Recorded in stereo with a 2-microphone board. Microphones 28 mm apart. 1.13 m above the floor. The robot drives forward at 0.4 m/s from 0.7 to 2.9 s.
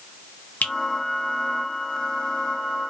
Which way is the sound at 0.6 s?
75° left (ahead or behind).